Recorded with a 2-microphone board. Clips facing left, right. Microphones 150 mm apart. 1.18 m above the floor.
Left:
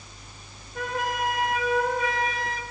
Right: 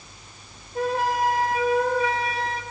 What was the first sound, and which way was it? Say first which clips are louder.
A flute: right 5 dB; 30° right (ahead or behind).